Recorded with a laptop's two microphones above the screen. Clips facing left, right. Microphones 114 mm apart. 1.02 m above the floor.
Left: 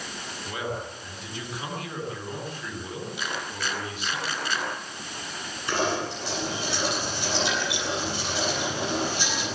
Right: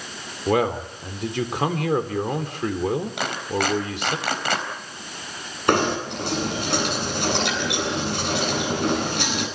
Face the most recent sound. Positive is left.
turn(degrees=-65)  # may be behind; listen again after turning